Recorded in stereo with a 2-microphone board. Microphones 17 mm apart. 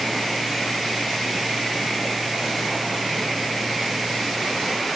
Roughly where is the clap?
No clap in this recording.